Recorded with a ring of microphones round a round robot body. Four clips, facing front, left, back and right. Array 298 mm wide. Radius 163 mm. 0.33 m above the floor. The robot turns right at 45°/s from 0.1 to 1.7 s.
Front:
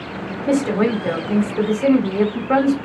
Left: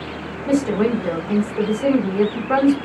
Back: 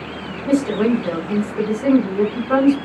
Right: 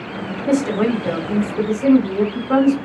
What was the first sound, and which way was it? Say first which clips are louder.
A woman speaking: even, back 1 dB; 45° right.